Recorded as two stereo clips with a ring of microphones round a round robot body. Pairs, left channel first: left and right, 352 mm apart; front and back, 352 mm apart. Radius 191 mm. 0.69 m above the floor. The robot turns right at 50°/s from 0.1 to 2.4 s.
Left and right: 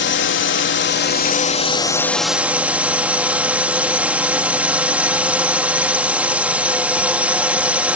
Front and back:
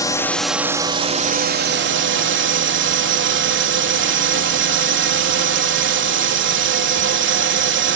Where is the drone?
70° left; by 8.0 s 175° right.